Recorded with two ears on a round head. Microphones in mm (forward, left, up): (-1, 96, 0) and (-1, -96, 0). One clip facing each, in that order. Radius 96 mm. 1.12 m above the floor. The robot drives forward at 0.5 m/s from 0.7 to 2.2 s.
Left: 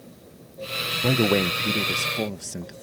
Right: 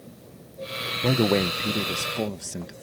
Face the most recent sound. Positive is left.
turn(degrees=5)  # may be behind; listen again after turning